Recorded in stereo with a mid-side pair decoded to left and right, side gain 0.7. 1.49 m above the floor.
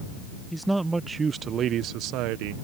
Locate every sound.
0.5 s a man speaking: straight ahead; by 2.5 s 75° right